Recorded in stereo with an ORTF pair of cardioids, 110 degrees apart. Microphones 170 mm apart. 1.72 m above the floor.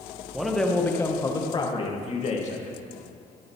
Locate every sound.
0.3 s a man speaking: 5° right, 2.0 m; by 2.8 s 50° left, 2.5 m